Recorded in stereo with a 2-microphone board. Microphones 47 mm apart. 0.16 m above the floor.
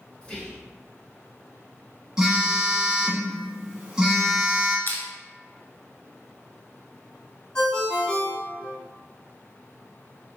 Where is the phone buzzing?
15° right (ahead or behind), 1.0 m.